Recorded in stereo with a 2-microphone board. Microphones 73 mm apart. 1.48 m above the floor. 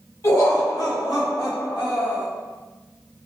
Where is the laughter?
50° left (ahead or behind), 1.9 m; by 2.3 s 85° left, 1.7 m.